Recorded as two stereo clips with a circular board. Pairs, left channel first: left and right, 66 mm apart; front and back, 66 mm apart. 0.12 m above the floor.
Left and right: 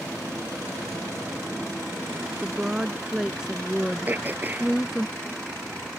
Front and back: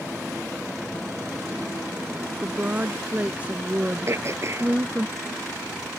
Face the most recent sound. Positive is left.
turn(degrees=-145)